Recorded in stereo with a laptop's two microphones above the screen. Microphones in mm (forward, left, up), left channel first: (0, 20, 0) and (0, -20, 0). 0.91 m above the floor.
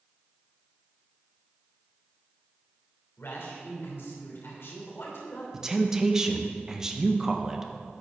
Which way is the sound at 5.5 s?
15° right (ahead or behind).